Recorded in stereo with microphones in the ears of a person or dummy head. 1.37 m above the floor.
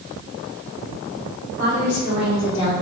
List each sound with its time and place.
1.6 s a woman speaking: 60° left (ahead or behind), 1.7 m